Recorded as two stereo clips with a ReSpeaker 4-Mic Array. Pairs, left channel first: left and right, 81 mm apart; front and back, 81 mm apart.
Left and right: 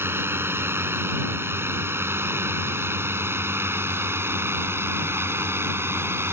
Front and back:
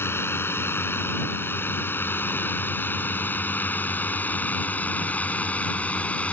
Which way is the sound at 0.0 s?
45° right.